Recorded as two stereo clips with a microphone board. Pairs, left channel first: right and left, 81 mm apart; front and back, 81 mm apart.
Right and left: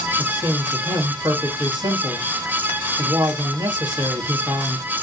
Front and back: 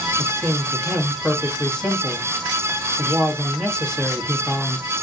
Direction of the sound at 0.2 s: 80° left.